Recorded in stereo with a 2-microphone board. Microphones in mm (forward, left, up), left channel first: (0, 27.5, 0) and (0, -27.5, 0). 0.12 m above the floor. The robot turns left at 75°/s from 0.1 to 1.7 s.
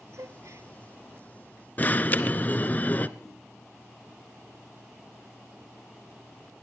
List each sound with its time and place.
0.1 s a gasp: 75° right, 1.1 m; by 0.7 s 115° right, 1.1 m
1.8 s an alarm: 30° left (ahead or behind), 1.0 m
3.2 s a whoosh: 35° left (ahead or behind), 9 m